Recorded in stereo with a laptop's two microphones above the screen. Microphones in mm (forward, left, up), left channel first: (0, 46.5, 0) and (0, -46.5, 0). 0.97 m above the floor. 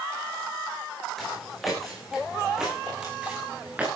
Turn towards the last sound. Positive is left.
turn(degrees=-15)  # may be behind; listen again after turning